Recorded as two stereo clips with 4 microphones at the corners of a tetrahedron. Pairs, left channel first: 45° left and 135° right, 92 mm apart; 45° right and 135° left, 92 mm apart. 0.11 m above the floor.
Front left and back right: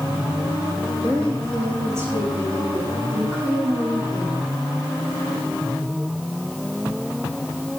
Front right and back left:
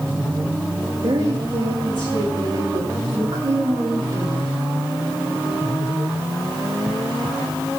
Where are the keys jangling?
No keys jangling in this recording.